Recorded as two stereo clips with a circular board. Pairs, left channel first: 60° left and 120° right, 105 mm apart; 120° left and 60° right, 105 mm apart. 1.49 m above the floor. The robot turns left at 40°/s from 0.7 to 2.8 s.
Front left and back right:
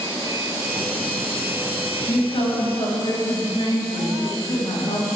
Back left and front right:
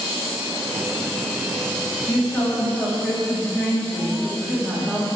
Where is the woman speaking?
70° left, 3.5 m; by 5.0 s 40° left, 3.5 m.